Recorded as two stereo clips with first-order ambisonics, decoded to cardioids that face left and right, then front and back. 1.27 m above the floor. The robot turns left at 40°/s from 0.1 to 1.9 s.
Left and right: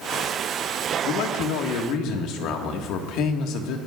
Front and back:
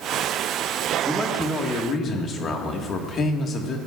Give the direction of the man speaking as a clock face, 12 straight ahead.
9 o'clock.